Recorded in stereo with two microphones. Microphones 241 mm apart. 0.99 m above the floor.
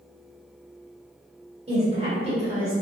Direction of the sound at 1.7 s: 25° right (ahead or behind).